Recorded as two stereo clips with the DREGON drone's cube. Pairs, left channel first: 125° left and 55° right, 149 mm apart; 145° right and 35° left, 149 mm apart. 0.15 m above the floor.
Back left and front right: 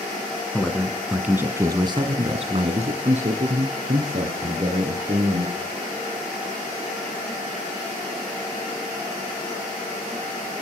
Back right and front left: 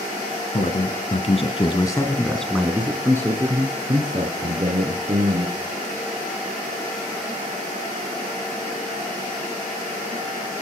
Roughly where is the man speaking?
Behind right.